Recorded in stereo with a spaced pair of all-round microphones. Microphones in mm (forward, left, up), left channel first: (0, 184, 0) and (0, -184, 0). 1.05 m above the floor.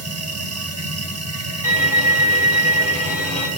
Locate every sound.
0.0 s a machine running: 40° right (ahead or behind), 1.1 m
1.6 s a violin: 60° left (ahead or behind), 1.6 m